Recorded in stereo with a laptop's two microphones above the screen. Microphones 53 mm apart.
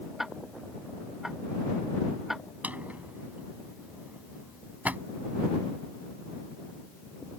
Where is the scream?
No scream in this recording.